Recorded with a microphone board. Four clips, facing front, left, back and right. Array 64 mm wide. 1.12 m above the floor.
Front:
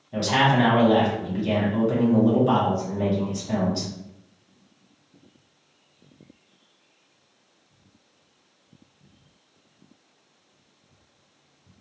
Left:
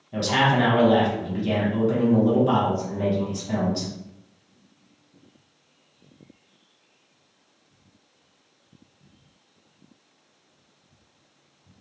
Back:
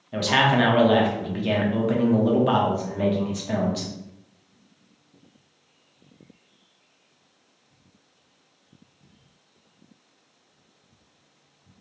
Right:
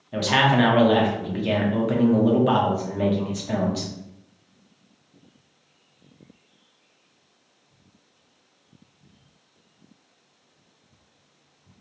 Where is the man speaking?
140° right, 0.7 m.